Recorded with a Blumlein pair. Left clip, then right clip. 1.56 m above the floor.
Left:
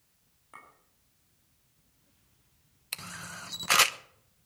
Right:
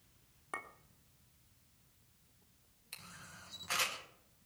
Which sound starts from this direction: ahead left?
A camera shutter, at 2.9 s.